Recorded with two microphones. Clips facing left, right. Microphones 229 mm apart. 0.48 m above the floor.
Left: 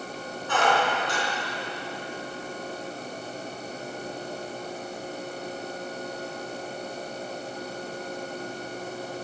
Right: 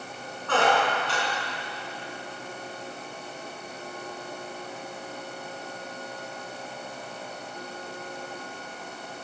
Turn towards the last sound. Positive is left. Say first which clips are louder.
# right 1 dB
turn(degrees=-75)  # may be behind; listen again after turning